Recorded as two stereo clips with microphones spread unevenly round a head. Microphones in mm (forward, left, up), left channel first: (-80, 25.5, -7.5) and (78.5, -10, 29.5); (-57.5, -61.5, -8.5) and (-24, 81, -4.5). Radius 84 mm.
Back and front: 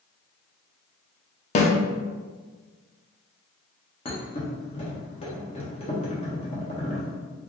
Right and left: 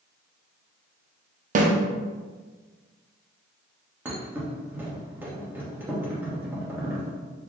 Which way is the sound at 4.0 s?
130° left.